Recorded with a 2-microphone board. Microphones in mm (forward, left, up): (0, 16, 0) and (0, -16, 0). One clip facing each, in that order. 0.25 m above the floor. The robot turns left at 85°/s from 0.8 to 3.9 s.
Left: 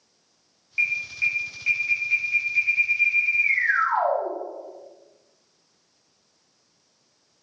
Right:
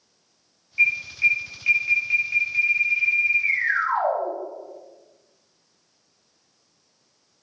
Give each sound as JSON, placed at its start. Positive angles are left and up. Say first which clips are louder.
{"t": 0.8, "sound": "an alarm", "louder": "right 4 dB", "azimuth_deg": 60, "distance_m": 0.9}